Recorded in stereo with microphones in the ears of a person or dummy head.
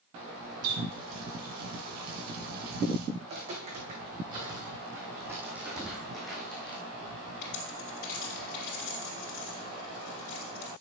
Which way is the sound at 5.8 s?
20° right (ahead or behind).